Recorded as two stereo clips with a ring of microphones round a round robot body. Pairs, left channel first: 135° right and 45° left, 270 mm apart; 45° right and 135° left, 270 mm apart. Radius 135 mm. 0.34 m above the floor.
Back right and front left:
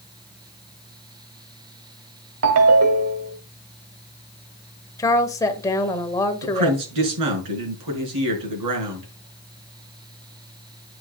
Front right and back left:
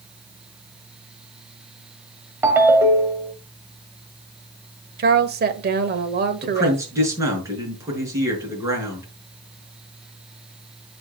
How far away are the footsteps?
I don't hear footsteps.